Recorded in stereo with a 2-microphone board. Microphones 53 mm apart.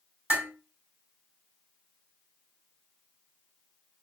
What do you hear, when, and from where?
0.3 s dishes clattering: 35° right (ahead or behind), 1.8 m